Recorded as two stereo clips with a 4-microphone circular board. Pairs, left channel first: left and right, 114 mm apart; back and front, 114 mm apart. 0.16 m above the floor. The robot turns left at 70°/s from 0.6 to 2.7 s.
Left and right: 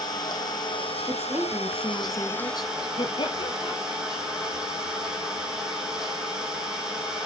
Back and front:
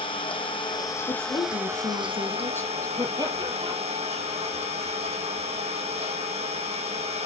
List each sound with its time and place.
0.0 s an engine running: 145° left, 4 m; by 7.3 s 5° right, 4 m
1.1 s a woman speaking: 140° right, 2.0 m; by 2.9 s 110° left, 2.0 m
3.0 s laughter: 50° left, 3.5 m